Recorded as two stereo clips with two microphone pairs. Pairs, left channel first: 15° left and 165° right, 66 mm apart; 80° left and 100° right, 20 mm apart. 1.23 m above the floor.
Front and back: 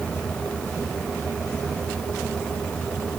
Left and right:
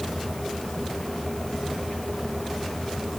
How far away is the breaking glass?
No breaking glass in this recording.